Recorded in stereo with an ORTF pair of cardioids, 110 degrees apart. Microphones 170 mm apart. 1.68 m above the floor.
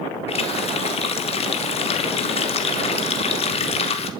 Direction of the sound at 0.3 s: 35° left.